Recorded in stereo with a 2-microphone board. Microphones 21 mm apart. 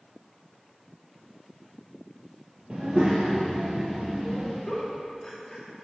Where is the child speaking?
50° right (ahead or behind), 0.6 m; by 4.6 s 10° right (ahead or behind), 1.6 m.